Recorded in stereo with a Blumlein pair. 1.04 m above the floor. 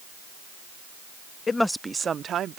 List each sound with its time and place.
1.5 s a woman speaking: 15° left; by 2.6 s 30° right